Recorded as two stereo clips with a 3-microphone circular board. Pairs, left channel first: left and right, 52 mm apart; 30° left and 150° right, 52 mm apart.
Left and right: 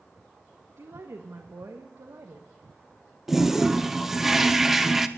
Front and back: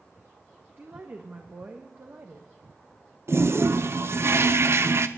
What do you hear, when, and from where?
0.8 s a woman speaking: 105° right, 1.4 m
3.3 s a toilet flushing: 175° right, 0.8 m